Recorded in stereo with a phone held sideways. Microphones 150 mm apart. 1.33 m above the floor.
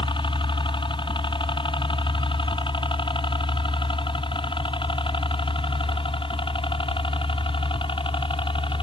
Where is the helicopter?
30° left (ahead or behind); by 8.8 s 35° left (ahead or behind).